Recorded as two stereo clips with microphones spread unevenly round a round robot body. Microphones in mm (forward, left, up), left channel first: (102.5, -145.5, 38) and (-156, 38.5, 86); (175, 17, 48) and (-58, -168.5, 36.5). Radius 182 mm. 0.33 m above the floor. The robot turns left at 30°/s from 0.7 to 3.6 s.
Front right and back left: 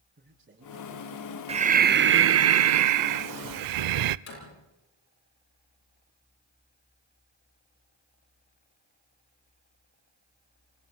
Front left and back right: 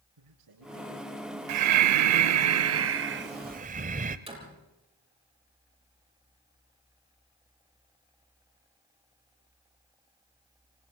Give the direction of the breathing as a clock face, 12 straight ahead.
5 o'clock.